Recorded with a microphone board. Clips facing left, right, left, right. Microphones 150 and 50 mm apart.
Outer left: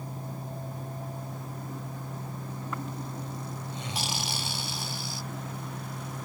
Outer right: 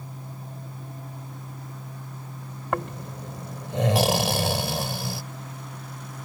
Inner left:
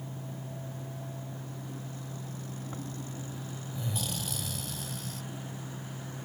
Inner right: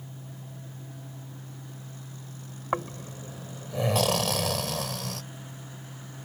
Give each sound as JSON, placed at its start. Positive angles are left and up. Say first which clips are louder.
{"t": 2.7, "sound": "snoring", "louder": "outer right 9 dB, inner right 14 dB", "side_deg": -90}